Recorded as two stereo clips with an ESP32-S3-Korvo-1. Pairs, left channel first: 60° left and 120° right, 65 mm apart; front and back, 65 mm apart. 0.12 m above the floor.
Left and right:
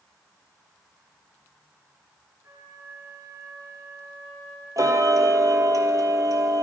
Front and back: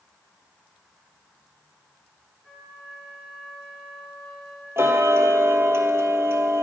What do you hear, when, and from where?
2.4 s a flute: 90° right, 2.5 m
4.8 s ticking: 135° right, 0.9 m